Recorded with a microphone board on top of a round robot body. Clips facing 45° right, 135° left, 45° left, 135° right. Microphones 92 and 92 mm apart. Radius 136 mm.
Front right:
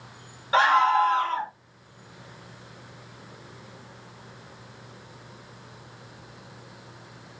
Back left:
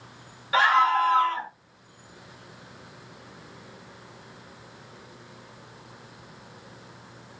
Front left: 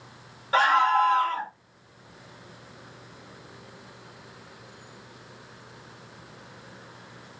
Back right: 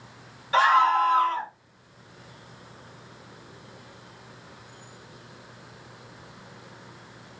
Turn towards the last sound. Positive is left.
turn(degrees=15)